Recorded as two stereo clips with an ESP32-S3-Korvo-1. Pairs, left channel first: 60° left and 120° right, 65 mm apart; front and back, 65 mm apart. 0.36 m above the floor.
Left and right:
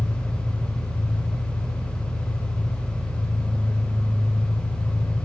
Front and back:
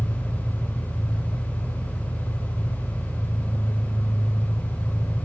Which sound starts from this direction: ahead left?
An engine running, at 0.0 s.